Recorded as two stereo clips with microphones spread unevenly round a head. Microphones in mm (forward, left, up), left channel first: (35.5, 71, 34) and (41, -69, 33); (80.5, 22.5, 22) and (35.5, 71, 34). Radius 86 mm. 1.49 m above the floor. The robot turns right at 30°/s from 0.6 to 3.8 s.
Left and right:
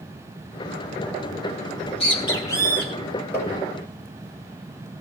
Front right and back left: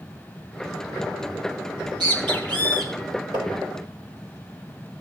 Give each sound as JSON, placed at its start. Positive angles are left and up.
{"t": 1.8, "sound": "a bird", "azimuth_deg": 145, "distance_m": 2.5}
{"t": 3.3, "sound": "tapping", "azimuth_deg": 170, "distance_m": 7.5}